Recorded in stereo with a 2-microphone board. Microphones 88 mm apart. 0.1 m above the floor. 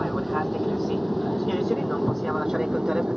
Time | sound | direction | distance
0.0 | an aircraft | centre (ahead or behind) | ?